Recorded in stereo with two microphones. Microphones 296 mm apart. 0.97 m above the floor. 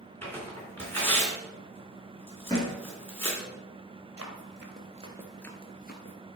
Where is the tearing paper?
5° left (ahead or behind), 3 m.